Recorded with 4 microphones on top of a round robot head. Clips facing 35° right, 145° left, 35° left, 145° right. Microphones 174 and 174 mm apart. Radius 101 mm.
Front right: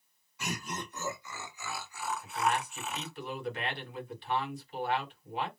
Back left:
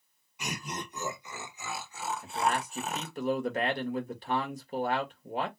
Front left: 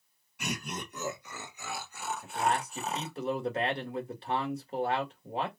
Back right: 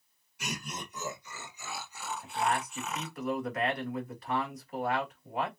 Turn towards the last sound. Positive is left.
turn(degrees=95)